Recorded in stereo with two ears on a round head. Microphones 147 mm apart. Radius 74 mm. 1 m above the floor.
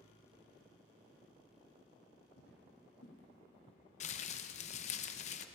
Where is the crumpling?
45° left (ahead or behind), 0.7 m.